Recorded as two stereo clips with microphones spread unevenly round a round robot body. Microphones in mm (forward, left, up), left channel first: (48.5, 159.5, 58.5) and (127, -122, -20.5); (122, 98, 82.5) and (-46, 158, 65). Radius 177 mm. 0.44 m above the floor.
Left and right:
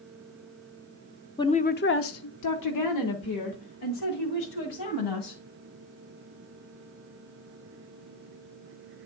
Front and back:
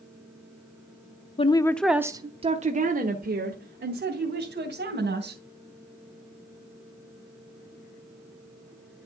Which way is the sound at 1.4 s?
15° left.